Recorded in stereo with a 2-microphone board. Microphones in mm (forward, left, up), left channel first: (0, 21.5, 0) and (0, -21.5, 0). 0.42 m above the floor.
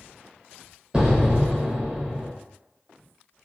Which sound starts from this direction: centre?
An explosion, at 0.9 s.